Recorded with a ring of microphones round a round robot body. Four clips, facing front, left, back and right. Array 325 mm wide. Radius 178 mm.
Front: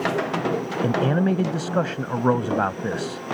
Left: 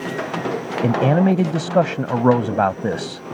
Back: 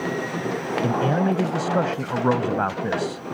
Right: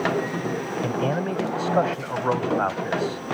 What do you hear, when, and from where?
0.8 s a man speaking: 85° left